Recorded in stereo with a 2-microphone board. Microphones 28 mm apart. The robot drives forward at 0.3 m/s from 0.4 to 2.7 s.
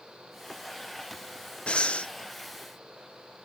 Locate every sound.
1.7 s breathing: 40° left (ahead or behind), 0.7 m; by 2.1 s 50° left (ahead or behind), 0.6 m